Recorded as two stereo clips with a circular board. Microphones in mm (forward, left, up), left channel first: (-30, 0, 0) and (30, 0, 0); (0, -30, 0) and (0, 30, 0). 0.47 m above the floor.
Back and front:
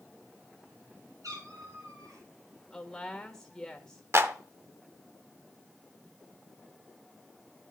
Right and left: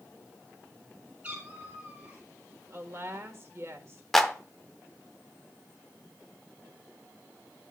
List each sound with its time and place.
1.2 s a cat meowing: 20° left, 3 m
2.7 s a woman speaking: 105° left, 1.3 m
4.1 s a clap: 5° right, 0.7 m